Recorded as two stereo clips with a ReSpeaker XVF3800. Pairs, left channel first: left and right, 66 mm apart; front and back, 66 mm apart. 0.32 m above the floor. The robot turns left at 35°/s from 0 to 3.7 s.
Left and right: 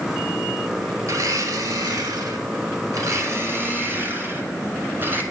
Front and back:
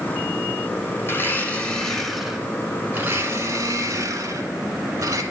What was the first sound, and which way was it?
A blender, 50° right.